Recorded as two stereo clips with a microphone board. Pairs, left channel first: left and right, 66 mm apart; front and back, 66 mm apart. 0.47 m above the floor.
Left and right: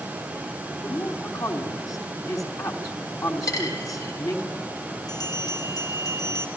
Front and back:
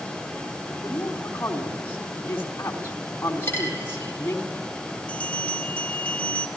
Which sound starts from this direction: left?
A bell, at 5.1 s.